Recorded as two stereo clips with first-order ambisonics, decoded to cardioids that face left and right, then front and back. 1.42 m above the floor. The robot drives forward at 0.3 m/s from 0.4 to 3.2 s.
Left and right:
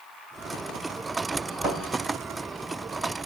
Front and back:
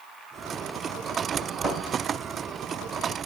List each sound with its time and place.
1.6 s a thud: 75° right, 3 m